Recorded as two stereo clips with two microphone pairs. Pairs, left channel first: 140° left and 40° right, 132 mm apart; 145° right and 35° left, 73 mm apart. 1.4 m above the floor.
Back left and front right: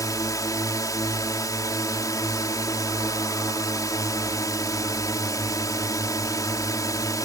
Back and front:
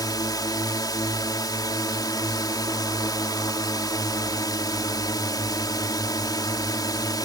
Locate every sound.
0.0 s a drone: 160° right